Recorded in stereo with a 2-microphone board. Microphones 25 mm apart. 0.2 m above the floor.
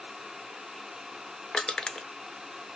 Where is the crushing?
35° left (ahead or behind), 0.6 m.